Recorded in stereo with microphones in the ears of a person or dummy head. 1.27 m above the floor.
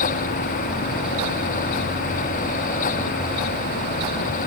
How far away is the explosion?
I don't hear an explosion.